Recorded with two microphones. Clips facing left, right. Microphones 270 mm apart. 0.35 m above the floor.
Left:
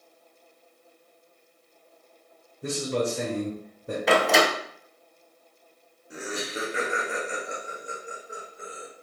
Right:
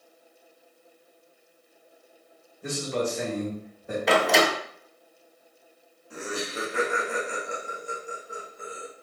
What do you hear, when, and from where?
2.6 s a man speaking: 40° left (ahead or behind), 1.0 m
4.1 s a door slam: centre (ahead or behind), 0.5 m
6.1 s laughter: 20° left (ahead or behind), 1.2 m